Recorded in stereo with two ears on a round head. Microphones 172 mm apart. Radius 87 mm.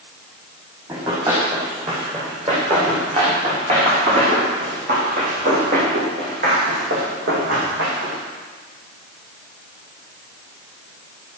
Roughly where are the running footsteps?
Right.